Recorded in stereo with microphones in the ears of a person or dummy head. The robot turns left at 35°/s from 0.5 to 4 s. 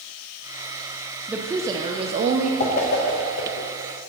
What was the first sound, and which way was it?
A woman speaking, 10° right.